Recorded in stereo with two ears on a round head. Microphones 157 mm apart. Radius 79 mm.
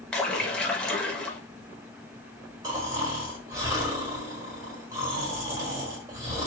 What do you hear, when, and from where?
0.1 s a splash: 5° left (ahead or behind), 0.6 m
2.6 s snoring: 20° right (ahead or behind), 1.5 m